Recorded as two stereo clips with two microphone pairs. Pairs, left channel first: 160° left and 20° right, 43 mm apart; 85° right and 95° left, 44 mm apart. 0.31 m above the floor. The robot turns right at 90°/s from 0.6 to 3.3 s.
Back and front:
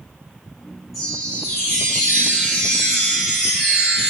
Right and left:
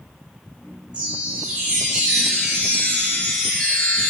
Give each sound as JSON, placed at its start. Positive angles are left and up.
{"t": 0.9, "sound": "a chime", "azimuth_deg": 65, "distance_m": 1.0}